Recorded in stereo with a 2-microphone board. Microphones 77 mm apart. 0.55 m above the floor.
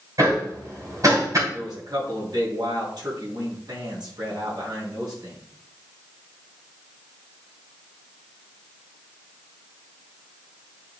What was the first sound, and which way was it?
Hammering, 45° right (ahead or behind).